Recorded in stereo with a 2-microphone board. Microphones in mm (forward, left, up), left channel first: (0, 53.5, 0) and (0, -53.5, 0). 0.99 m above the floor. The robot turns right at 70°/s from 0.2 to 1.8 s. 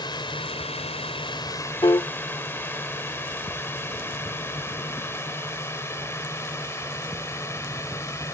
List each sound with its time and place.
0.0 s a drone: 45° left (ahead or behind); by 8.3 s 25° left (ahead or behind)
1.8 s a piano: 50° left (ahead or behind)